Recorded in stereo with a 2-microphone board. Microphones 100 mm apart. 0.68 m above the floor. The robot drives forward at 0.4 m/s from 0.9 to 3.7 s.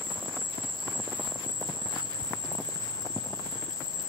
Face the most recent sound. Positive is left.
turn(degrees=-35)  # may be behind; listen again after turning